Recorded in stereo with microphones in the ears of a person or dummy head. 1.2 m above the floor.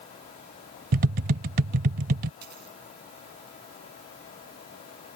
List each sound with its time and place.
0.9 s tapping: 40° right (ahead or behind)
2.4 s a dropped coin: 55° right (ahead or behind)